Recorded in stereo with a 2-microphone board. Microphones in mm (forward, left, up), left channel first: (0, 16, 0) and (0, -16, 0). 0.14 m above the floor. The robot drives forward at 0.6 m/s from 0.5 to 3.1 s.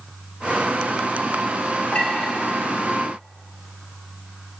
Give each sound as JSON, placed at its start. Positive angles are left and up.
{"t": 1.9, "sound": "a clink", "side_deg": 40, "distance_m": 2.0}